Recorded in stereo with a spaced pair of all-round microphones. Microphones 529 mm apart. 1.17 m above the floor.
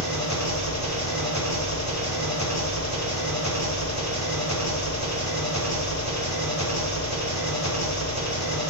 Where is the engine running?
30° left (ahead or behind), 4 m.